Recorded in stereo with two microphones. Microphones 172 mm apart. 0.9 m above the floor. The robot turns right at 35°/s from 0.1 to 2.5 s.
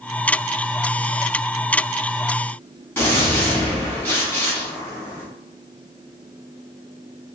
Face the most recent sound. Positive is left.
turn(degrees=10)  # may be behind; listen again after turning